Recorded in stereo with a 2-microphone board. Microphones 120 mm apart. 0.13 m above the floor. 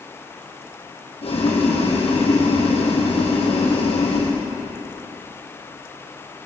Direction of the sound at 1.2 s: 60° left (ahead or behind).